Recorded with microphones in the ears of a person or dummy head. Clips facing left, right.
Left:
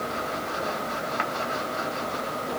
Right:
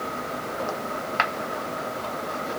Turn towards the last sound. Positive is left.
No sound to turn to.